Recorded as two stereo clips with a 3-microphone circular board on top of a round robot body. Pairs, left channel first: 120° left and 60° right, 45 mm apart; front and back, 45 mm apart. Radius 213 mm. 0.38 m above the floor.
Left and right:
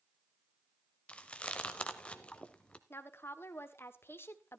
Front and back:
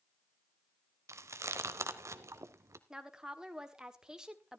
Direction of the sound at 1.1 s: 175° right.